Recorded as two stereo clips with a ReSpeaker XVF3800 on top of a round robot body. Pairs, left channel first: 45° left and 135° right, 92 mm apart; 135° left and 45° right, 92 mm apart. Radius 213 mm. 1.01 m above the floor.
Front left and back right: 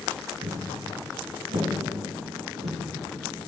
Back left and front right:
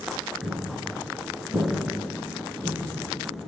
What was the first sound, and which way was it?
Footsteps, 140° right.